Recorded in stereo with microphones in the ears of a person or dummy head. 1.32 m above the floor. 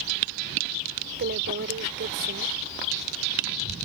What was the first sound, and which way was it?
A woman speaking, 60° right (ahead or behind).